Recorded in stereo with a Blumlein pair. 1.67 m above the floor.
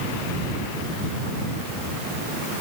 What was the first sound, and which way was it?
Only background noise.